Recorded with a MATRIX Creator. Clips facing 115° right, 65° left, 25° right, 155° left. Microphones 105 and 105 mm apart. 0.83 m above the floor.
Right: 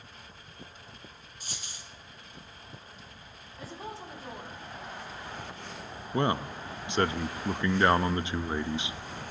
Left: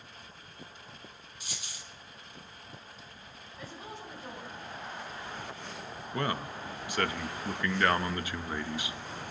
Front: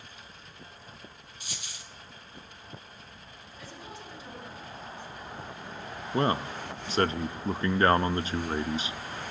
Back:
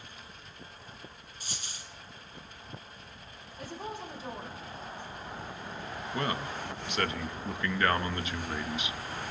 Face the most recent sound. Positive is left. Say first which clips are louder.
# right 5 dB, front 6 dB
turn(degrees=-60)